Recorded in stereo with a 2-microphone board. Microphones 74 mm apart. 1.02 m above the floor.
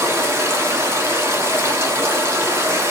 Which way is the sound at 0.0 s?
35° right (ahead or behind).